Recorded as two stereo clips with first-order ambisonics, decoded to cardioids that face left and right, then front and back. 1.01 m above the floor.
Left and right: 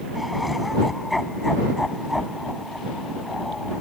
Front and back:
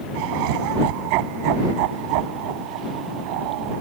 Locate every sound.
0.1 s laughter: 175° left